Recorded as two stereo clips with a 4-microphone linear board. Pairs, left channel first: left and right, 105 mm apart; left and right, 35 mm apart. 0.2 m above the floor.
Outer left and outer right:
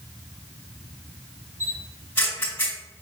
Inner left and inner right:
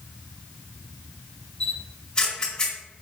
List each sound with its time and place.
1.6 s a camera shutter: 20° left (ahead or behind), 1.8 m